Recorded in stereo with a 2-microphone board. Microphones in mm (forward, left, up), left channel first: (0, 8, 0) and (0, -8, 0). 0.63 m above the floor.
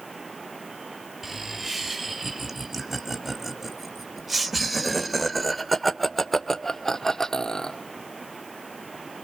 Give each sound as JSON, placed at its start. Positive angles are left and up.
{"t": 1.2, "sound": "laughter", "side_deg": -20, "distance_m": 5.0}